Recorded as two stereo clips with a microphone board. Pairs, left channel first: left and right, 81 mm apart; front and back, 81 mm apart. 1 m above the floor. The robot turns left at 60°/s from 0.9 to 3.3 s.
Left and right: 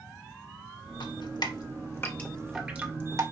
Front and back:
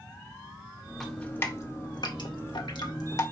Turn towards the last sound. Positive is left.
turn(degrees=-50)